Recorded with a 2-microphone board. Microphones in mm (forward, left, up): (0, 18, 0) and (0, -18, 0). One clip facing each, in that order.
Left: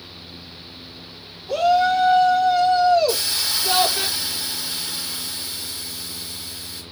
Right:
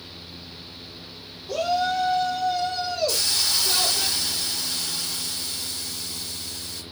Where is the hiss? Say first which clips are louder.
Left 2 dB; 15° left (ahead or behind), 1.6 m.